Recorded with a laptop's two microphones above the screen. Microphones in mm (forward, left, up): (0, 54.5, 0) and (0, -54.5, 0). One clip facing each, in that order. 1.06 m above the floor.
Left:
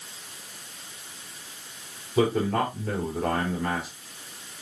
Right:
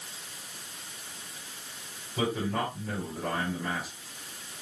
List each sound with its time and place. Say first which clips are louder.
2.2 s a man speaking: left 7 dB; 80° left, 4 m